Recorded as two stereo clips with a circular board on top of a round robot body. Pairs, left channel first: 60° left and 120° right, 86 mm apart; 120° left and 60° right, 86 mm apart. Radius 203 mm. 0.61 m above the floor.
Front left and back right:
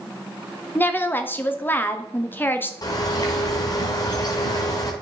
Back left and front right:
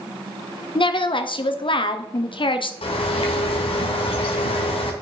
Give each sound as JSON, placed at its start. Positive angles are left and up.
{"t": 0.8, "sound": "a woman speaking", "azimuth_deg": 125, "distance_m": 1.0}
{"t": 2.8, "sound": "a bird", "azimuth_deg": 110, "distance_m": 1.2}